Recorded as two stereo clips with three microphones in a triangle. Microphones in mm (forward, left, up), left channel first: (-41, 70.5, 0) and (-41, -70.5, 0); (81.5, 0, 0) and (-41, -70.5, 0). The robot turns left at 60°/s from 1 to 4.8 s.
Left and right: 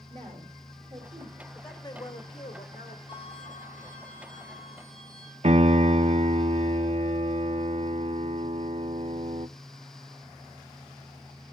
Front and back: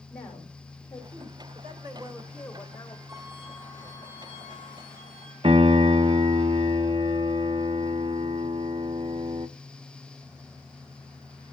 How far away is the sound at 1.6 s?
About 3 m.